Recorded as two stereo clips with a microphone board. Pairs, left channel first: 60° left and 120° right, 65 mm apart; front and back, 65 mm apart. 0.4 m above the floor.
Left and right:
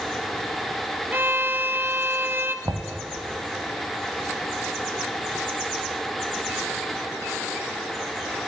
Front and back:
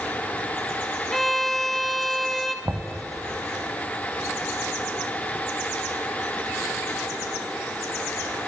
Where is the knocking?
140° right, 1.7 m.